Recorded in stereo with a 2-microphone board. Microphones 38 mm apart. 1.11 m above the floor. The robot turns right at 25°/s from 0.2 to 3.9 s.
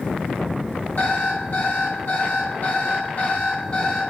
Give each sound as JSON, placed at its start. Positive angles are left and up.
{"t": 1.0, "sound": "an alarm clock", "azimuth_deg": 85, "distance_m": 1.1}